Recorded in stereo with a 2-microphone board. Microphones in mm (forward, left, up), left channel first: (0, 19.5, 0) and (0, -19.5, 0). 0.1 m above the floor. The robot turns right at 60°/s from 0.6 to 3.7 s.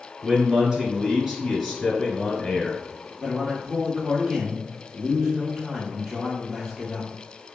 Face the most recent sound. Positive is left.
turn(degrees=-10)